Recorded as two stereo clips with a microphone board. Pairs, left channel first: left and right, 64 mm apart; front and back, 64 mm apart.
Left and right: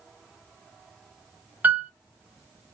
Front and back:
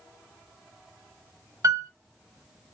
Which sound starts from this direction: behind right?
A piano, at 1.6 s.